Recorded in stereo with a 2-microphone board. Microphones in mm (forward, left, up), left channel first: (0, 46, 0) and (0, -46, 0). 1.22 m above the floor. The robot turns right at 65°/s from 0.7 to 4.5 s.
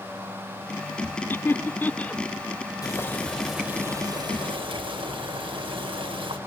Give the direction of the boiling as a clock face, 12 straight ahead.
7 o'clock.